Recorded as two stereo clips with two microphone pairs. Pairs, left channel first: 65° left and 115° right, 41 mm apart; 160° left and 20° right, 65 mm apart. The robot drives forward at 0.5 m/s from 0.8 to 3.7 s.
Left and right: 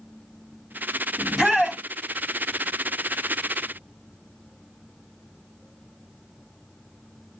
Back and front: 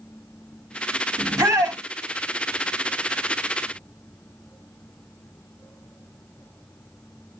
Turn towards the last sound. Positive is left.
turn(degrees=-55)